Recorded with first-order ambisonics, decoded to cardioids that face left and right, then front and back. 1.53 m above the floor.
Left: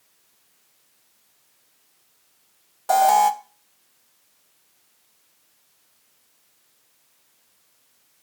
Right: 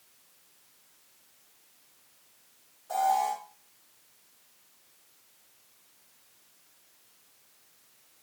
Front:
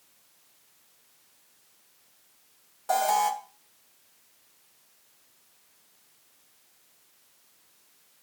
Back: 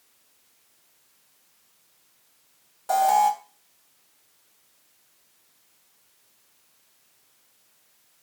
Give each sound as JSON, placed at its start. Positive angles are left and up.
{"t": 2.9, "sound": "an alarm", "azimuth_deg": 90, "distance_m": 1.3}